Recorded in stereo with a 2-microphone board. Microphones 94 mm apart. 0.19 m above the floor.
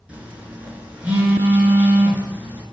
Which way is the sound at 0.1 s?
15° right (ahead or behind).